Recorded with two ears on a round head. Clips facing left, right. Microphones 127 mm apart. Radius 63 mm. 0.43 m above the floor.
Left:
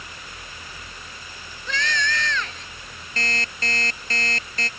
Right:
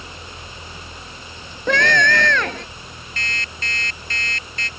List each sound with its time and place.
1.7 s a scream: 50° right (ahead or behind)
3.2 s an alarm clock: 30° left (ahead or behind)